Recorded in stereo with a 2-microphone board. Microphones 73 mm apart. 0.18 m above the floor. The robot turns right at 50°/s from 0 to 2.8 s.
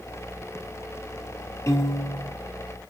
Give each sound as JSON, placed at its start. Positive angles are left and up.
{"t": 1.7, "sound": "a piano", "azimuth_deg": 45, "distance_m": 1.3}